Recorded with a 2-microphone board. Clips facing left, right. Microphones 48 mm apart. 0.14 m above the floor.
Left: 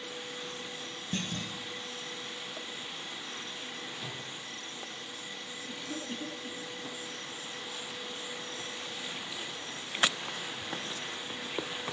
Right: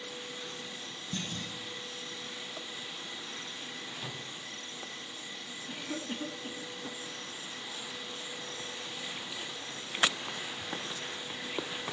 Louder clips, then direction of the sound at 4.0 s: Even; 15° right (ahead or behind).